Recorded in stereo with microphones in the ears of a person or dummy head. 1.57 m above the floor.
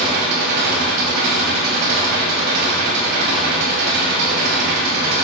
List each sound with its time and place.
0.0 s an engine running: 60° right (ahead or behind), 6.5 m